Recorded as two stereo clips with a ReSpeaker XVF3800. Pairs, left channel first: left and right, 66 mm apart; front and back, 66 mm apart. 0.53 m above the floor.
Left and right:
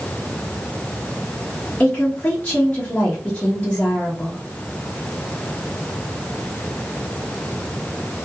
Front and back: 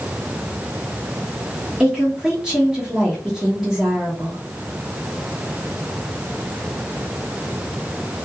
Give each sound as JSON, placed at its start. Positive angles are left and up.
{"t": 1.8, "sound": "a woman speaking", "azimuth_deg": 110, "distance_m": 0.9}